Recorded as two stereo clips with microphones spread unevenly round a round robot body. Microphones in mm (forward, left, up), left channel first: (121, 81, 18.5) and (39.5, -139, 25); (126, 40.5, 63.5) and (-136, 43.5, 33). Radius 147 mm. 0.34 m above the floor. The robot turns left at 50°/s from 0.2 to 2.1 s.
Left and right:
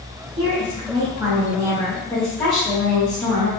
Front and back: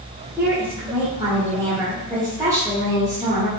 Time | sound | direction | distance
0.4 | a woman speaking | 120° right | 1.2 m